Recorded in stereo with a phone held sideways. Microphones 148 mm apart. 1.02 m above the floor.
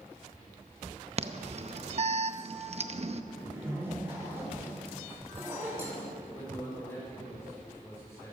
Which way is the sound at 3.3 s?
15° right (ahead or behind).